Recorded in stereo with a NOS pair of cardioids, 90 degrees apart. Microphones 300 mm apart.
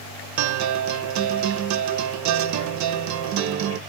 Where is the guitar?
70° right, 0.6 m.